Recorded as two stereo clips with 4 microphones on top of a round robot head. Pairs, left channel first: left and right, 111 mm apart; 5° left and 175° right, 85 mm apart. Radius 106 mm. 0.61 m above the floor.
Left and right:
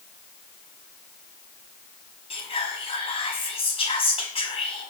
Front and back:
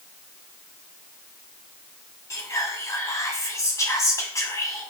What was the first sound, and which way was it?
Whispering, 60° left.